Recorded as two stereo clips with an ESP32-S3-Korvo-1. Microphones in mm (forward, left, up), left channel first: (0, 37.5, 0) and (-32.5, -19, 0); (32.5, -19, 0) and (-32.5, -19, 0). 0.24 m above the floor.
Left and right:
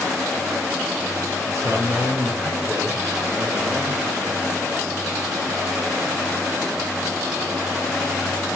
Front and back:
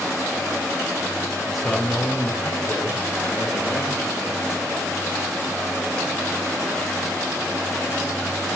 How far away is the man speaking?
About 3 m.